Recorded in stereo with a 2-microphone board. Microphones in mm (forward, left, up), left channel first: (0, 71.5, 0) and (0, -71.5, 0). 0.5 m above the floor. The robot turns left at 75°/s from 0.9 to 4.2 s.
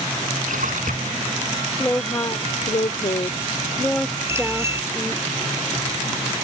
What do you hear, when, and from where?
0.4 s a splash: 95° right; by 1.3 s 125° right
1.8 s a woman speaking: 170° left; by 5.2 s 10° right
4.3 s a bicycle bell: 20° right (ahead or behind)